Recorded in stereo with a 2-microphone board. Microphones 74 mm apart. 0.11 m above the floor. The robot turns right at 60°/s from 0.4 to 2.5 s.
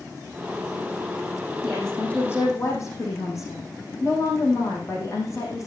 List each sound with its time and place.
1.6 s a woman speaking: 5° right, 5 m; by 5.7 s 45° left, 5 m